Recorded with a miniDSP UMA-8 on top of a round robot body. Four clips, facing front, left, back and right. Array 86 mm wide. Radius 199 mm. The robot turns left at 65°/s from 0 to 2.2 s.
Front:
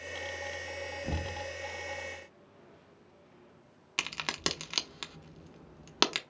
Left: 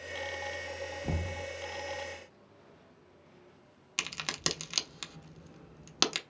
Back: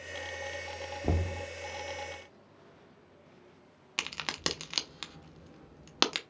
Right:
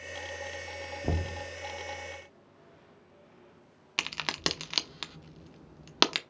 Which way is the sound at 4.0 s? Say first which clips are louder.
Right 4 dB, front 1 dB; 95° right.